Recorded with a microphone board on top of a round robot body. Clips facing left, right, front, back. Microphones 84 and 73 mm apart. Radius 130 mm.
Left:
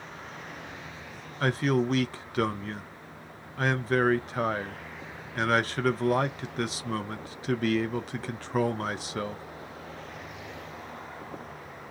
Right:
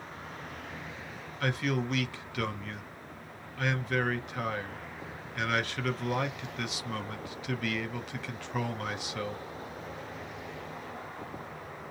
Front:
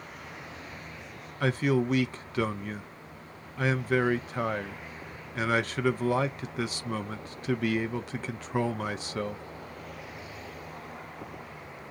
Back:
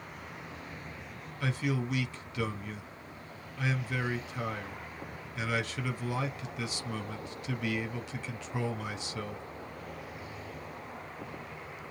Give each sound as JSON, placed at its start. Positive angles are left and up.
{"t": 1.4, "sound": "a man speaking", "azimuth_deg": 35, "distance_m": 0.5}